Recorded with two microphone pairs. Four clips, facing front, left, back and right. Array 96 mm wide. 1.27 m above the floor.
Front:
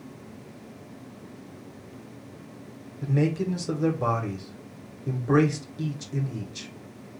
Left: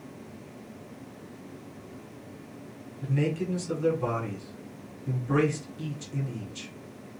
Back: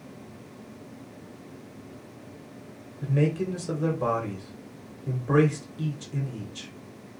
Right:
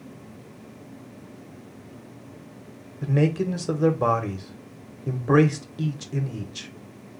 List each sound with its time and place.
3.0 s a man speaking: 80° right, 1.2 m